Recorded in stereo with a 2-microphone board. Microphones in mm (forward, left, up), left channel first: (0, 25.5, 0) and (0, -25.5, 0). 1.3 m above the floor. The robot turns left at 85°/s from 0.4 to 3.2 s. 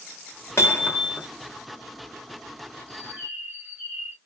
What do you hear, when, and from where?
0.6 s hammering: 65° left, 1.3 m; by 1.3 s 5° left, 1.3 m
2.9 s a bird: 60° right (ahead or behind), 1.8 m; by 4.2 s 35° right (ahead or behind), 1.8 m